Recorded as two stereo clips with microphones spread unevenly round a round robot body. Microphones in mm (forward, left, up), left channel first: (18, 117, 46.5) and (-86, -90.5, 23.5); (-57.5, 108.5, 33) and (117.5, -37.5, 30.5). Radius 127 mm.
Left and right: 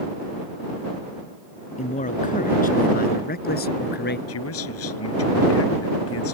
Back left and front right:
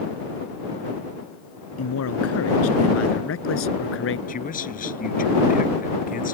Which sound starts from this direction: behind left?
A man speaking, at 1.8 s.